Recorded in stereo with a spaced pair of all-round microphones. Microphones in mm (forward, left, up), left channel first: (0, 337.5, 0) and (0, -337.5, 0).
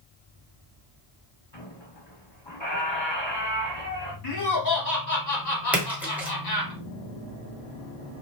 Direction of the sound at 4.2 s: 75° left (ahead or behind).